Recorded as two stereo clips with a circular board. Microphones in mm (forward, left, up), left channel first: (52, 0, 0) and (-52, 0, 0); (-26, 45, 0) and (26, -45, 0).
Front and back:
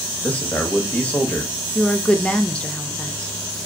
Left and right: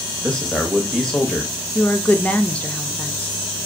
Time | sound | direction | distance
0.2 | a man speaking | 50° left | 0.8 m
1.8 | a woman speaking | 65° left | 0.5 m